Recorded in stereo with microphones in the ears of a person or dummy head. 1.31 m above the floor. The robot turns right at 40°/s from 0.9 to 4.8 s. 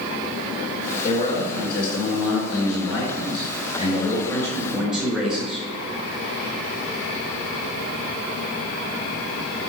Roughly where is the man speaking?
Ahead left.